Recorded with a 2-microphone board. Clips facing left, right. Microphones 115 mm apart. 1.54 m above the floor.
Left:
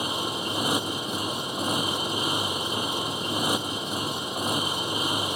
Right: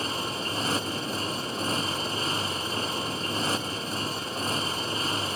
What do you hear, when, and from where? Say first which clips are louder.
0.0 s a motorcycle: left 2 dB; 15° left (ahead or behind)